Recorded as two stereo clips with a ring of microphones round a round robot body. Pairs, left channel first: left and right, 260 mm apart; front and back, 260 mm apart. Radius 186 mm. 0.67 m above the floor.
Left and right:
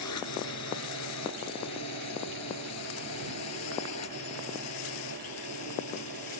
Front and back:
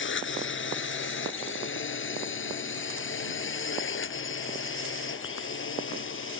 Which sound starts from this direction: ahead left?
A drone, at 0.0 s.